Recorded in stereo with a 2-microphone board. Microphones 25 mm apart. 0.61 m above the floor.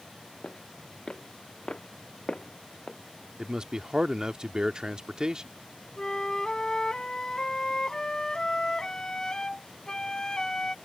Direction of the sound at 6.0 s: 35° left (ahead or behind).